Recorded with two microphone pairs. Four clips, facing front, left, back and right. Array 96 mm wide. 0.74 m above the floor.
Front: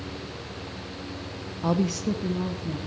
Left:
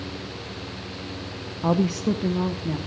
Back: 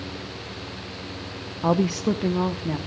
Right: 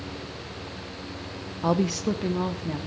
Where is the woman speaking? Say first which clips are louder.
Left 2 dB, back 4 dB; 175° left, 0.5 m; by 2.8 s 175° right, 1.2 m.